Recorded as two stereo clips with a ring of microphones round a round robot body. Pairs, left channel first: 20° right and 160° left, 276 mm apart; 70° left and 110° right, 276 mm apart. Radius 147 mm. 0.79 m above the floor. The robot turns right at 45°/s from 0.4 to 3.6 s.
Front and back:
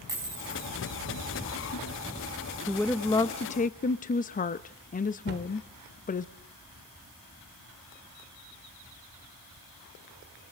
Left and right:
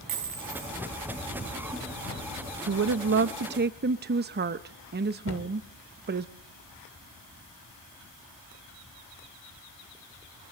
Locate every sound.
0.1 s a dropped coin: 125° right, 9 m; by 0.7 s 110° right, 9 m
2.7 s a woman speaking: 115° right, 0.7 m; by 6.3 s 75° right, 0.7 m
5.3 s a cupboard door: 110° left, 3.5 m